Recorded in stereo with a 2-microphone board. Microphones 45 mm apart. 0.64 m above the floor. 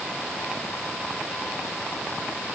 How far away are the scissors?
I don't hear scissors.